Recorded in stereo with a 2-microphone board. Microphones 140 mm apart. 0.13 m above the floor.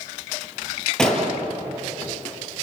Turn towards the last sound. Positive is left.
turn(degrees=5)  # may be behind; listen again after turning